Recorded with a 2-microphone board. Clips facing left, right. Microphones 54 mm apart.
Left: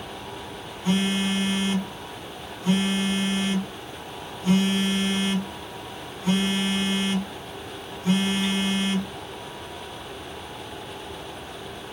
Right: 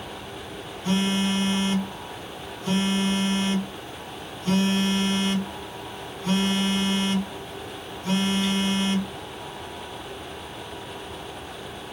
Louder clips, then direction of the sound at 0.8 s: Even; 15° left (ahead or behind).